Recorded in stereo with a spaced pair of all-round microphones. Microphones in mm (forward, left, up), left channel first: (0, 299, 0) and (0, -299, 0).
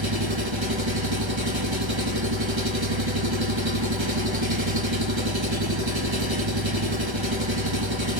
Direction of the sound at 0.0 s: 50° right (ahead or behind).